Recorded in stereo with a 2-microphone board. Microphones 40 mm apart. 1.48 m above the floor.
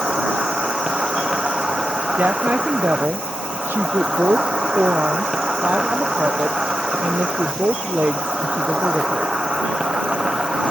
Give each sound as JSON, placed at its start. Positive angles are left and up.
{"t": 0.0, "sound": "an insect", "side_deg": -20}
{"t": 2.2, "sound": "a woman speaking", "side_deg": -55}